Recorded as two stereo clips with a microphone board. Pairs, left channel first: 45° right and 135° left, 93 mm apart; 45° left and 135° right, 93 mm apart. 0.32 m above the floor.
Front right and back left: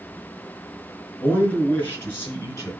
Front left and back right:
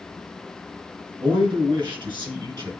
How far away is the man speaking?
About 4.5 m.